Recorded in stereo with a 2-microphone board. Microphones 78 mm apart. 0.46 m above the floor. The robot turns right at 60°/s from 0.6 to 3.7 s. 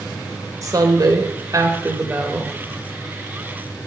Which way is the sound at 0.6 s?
115° right.